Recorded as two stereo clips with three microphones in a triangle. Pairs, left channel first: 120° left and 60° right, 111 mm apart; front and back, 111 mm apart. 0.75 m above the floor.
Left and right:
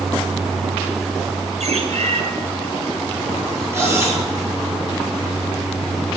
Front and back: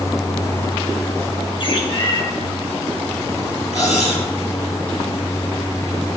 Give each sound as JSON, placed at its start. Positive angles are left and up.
{"t": 1.6, "sound": "a bird", "azimuth_deg": -45, "distance_m": 3.0}
{"t": 3.7, "sound": "cutlery clinking", "azimuth_deg": 5, "distance_m": 9.5}